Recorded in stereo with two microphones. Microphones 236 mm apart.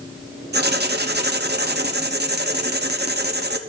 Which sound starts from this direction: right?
Writing, at 0.5 s.